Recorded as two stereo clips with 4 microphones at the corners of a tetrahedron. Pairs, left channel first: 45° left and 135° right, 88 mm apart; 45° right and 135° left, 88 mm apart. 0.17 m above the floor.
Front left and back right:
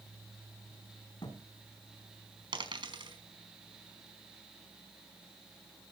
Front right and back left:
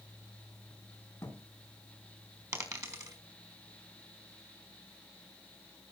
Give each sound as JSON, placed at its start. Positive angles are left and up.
{"t": 1.2, "sound": "a thud", "azimuth_deg": 20, "distance_m": 6.5}
{"t": 2.5, "sound": "a dropped coin", "azimuth_deg": -170, "distance_m": 4.5}